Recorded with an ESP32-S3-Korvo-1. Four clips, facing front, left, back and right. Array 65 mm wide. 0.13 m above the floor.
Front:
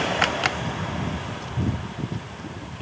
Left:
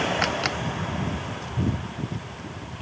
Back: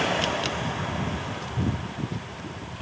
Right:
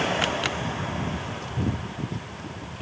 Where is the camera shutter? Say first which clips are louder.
Left 1 dB, front 4 dB; 15° left.